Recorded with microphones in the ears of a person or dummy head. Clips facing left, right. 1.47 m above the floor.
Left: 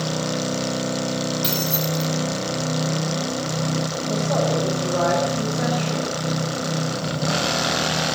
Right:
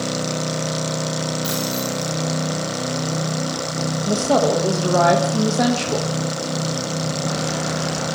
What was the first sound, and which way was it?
Keys jangling, 35° left (ahead or behind).